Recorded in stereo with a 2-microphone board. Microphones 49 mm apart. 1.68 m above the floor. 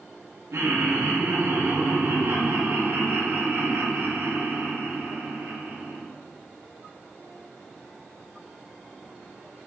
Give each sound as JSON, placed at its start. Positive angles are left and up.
{"t": 0.5, "sound": "laughter", "side_deg": -80, "distance_m": 2.5}